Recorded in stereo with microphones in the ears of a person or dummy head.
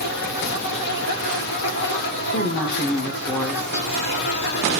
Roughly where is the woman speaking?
Centre.